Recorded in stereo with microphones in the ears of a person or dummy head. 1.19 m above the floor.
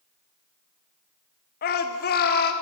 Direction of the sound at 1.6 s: 50° left (ahead or behind).